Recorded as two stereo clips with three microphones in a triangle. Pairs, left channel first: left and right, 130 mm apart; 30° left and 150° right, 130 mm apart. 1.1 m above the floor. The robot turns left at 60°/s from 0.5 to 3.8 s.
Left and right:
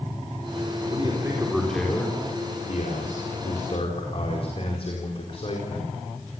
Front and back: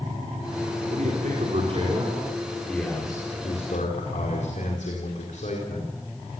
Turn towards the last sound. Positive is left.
turn(degrees=50)